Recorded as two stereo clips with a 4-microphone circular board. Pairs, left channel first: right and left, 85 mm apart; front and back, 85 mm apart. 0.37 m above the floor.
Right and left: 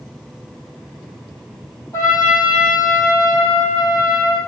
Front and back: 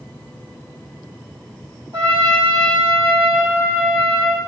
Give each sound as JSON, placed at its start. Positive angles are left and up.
{"t": 1.9, "sound": "a trumpet", "azimuth_deg": -145, "distance_m": 3.5}